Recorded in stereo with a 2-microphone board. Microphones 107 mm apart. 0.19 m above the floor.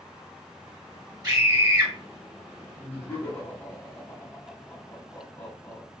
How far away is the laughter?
About 1.5 m.